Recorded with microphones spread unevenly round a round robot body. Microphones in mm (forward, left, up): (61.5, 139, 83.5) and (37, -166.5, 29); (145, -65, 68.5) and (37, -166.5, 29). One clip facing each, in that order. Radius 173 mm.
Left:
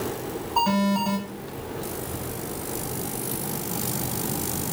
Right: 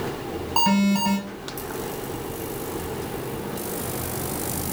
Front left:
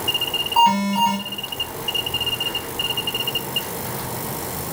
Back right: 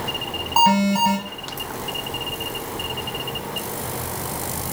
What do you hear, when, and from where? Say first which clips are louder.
0.6 s an alarm: right 3 dB, even; 120° right, 4.5 m